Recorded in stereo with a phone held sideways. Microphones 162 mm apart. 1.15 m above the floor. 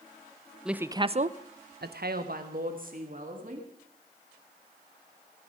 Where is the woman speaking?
5° right (ahead or behind), 0.7 m; by 3.7 s 55° right (ahead or behind), 2.5 m.